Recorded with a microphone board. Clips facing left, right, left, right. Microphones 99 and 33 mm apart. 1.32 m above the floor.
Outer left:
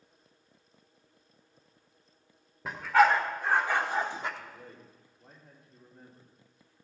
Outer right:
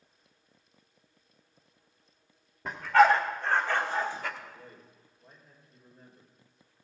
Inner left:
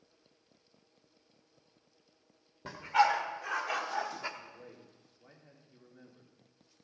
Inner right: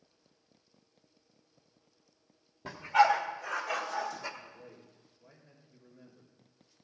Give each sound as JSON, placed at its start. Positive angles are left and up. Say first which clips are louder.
{"t": 2.6, "sound": "a dog barking", "louder": "outer right 2 dB, inner right 3 dB", "side_deg": 0, "distance_m": 2.0}
{"t": 4.4, "sound": "a man speaking", "louder": "outer left 1 dB, even", "side_deg": 65, "distance_m": 3.5}